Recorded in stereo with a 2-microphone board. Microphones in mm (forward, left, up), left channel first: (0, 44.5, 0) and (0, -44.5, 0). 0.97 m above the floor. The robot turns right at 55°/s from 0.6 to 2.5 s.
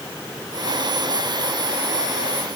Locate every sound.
Only background noise.